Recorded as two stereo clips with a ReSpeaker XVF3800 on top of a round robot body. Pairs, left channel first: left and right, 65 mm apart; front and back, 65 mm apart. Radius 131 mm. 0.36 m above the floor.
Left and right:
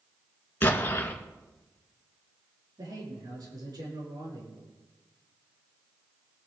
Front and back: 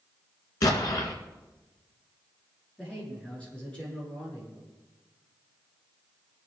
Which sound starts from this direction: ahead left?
An explosion, at 0.6 s.